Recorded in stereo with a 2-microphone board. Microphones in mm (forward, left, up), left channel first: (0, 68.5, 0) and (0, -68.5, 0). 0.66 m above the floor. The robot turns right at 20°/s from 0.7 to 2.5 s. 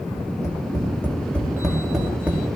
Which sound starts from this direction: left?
Tapping, at 0.2 s.